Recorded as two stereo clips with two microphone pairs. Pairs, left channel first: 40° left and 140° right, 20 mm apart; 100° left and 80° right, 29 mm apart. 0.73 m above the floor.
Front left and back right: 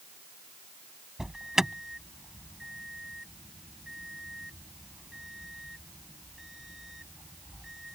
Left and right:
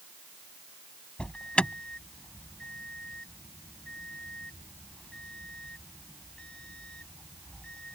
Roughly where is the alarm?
Behind left.